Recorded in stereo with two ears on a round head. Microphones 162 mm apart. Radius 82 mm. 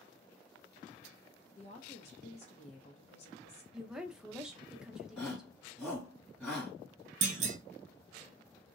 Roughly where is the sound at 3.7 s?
Centre.